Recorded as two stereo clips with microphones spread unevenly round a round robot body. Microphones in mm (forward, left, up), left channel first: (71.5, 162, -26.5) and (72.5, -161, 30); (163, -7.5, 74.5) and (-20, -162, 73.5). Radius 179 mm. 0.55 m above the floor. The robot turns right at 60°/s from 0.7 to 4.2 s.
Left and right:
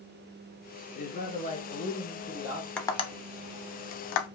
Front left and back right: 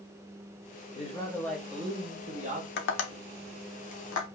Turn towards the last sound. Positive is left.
turn(degrees=85)